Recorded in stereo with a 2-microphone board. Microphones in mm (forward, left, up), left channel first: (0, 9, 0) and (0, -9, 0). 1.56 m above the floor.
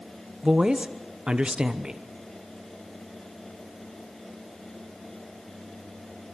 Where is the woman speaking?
45° right (ahead or behind), 1.0 m.